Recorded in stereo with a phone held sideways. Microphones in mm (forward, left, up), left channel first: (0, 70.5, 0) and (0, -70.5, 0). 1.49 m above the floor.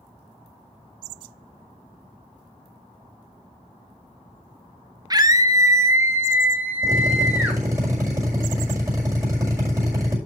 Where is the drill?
20° right (ahead or behind), 6 m.